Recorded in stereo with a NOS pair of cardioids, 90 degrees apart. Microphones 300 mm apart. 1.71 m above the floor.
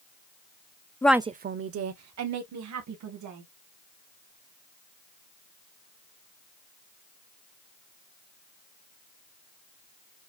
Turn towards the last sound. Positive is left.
turn(degrees=-75)